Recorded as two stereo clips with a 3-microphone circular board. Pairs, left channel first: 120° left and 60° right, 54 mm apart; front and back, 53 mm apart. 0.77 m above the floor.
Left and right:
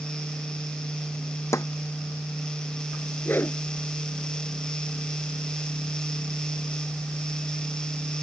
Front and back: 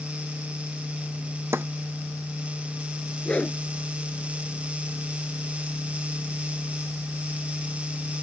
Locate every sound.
1.5 s a snare drum: 140° left
3.2 s a whoosh: 70° left